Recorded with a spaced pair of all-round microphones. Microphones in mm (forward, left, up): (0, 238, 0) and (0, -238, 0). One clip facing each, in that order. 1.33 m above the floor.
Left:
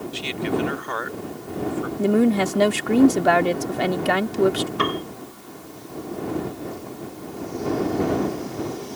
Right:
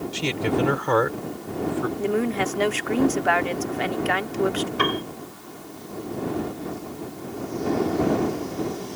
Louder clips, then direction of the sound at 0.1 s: Right 1 dB; 80° right.